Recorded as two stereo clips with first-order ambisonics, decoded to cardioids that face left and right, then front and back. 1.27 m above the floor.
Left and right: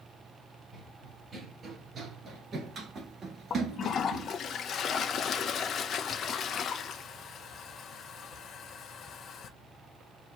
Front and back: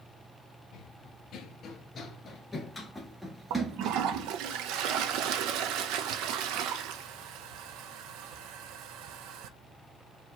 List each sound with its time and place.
0.7 s running footsteps: 25° right, 1.8 m; by 4.3 s 140° right, 1.5 m
3.5 s a toilet flushing: 150° left, 0.7 m